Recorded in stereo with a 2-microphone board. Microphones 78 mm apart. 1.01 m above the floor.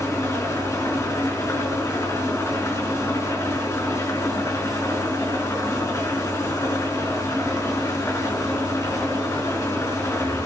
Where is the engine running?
40° left (ahead or behind), 5.5 m.